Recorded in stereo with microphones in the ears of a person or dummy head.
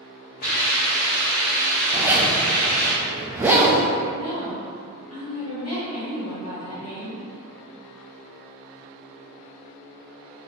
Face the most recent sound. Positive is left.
turn(degrees=80)